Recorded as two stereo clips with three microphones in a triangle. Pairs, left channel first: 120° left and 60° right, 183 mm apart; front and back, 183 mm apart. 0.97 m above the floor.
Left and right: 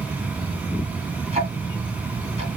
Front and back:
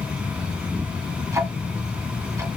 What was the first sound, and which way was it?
Ticking, 110° right.